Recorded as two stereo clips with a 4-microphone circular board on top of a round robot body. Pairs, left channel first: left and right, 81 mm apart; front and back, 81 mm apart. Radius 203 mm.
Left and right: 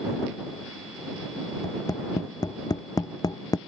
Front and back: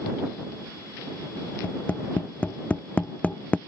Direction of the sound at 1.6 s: 70° left.